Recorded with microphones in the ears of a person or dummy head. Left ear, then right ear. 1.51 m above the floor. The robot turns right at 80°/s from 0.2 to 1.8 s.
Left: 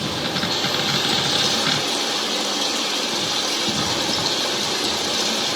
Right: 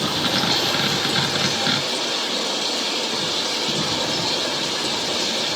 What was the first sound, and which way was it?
Running water, 45° right.